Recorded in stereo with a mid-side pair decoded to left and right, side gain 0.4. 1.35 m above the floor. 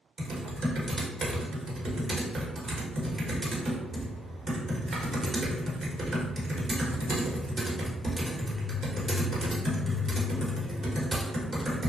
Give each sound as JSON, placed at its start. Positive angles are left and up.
{"t": 0.2, "sound": "typing on a keyboard", "azimuth_deg": -50, "distance_m": 1.0}